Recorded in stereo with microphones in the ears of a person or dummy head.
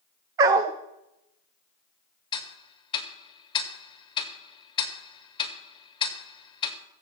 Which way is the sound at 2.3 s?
25° left (ahead or behind).